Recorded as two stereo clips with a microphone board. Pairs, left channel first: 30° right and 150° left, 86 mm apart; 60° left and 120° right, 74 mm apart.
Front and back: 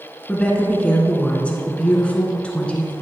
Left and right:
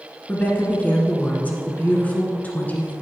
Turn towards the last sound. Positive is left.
turn(degrees=25)